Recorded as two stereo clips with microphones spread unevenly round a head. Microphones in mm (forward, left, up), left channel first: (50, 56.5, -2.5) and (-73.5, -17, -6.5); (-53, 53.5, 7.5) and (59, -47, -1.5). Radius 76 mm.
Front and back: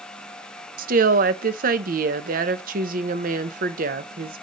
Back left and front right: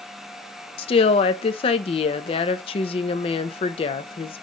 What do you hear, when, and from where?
0.8 s a woman speaking: 165° right, 0.6 m